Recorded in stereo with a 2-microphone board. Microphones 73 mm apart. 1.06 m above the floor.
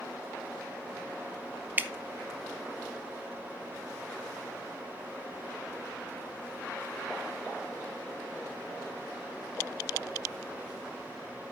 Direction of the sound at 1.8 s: 25° right (ahead or behind).